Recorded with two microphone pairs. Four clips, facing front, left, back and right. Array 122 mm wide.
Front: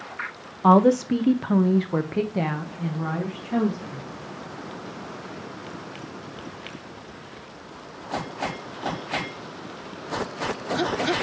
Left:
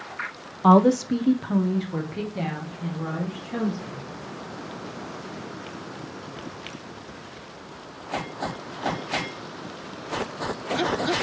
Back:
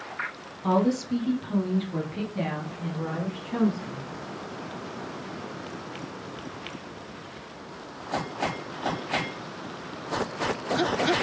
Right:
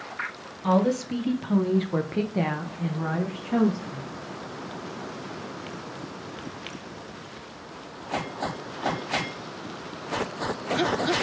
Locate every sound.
0.6 s a woman speaking: 40° left, 0.9 m; by 4.0 s 55° right, 2 m